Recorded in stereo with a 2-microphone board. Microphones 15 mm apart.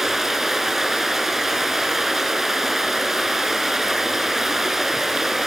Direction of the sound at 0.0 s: 25° right (ahead or behind).